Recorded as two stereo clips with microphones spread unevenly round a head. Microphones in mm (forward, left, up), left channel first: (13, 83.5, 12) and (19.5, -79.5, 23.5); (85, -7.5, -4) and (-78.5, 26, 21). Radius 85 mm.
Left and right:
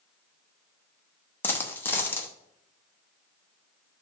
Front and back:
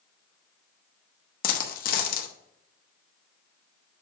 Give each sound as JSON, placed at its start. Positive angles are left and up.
{"t": 1.4, "sound": "a dropped coin", "azimuth_deg": 15, "distance_m": 0.9}